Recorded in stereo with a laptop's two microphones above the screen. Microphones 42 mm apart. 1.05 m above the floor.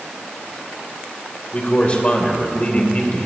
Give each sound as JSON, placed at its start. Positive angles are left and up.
{"t": 1.5, "sound": "a man speaking", "side_deg": 30, "distance_m": 3.5}